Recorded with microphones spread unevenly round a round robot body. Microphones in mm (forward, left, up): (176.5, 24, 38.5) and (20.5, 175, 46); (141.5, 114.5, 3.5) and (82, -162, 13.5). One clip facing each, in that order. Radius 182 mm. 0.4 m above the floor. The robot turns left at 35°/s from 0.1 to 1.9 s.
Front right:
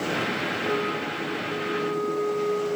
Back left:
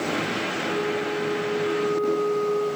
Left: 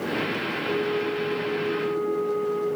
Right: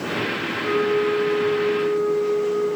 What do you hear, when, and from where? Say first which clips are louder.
0.6 s a flute: back left 2 dB, right 6 dB; 105° right, 4 m; by 2.7 s 150° right, 4 m